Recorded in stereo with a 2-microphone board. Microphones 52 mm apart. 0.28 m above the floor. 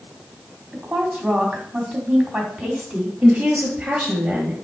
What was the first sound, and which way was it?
A woman speaking, 30° right (ahead or behind).